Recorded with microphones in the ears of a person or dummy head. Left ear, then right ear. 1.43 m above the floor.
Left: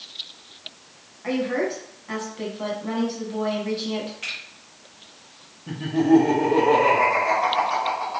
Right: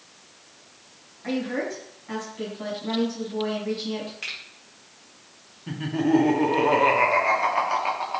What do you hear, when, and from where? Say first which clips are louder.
1.2 s a woman speaking: left 4 dB; 10° left (ahead or behind), 1.6 m
4.2 s a finger snap: left 1 dB; 25° right (ahead or behind), 0.8 m
5.7 s laughter: left 4 dB; 30° right (ahead or behind), 0.6 m